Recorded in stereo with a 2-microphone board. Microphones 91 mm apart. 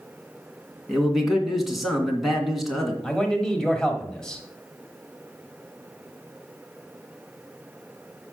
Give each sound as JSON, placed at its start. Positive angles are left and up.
{"t": 0.9, "sound": "a man speaking", "side_deg": 0, "distance_m": 2.0}
{"t": 3.0, "sound": "a man speaking", "side_deg": 5, "distance_m": 1.4}